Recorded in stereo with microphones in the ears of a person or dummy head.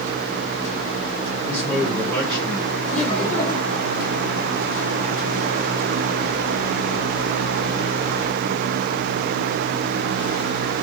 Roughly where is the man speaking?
Centre.